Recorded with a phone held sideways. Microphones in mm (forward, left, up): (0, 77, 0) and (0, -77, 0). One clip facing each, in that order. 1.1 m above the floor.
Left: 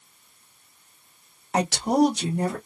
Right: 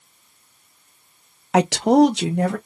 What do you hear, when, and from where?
1.5 s a woman speaking: 85° right, 0.5 m; by 2.6 s 80° right, 1.0 m